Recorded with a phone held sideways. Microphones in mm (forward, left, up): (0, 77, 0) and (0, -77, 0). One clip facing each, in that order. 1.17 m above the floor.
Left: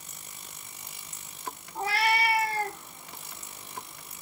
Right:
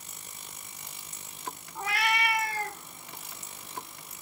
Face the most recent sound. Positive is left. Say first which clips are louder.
# left 3 dB
turn(degrees=30)  # may be behind; listen again after turning